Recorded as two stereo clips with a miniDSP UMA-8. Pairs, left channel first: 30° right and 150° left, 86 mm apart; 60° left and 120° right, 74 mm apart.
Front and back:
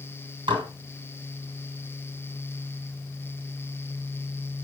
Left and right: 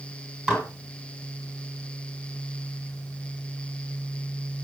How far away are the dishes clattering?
About 2 m.